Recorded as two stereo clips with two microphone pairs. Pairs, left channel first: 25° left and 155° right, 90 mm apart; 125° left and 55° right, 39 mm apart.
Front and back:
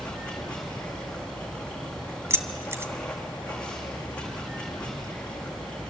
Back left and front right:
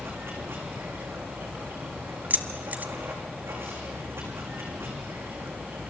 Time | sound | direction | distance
0.0 | running water | 50° right | 6 m
2.3 | keys jangling | 95° right | 1.6 m